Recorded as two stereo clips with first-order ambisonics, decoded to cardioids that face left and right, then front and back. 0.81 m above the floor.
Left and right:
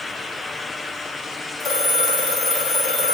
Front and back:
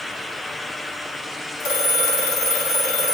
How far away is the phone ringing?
About 1.1 m.